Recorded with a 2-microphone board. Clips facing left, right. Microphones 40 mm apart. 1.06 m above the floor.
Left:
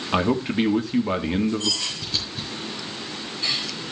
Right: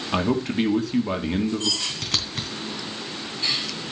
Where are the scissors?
75° right (ahead or behind), 3.5 m.